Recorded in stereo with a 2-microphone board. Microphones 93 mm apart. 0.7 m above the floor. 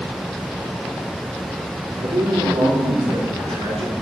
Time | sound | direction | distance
2.0 | a man speaking | 80° right | 7.5 m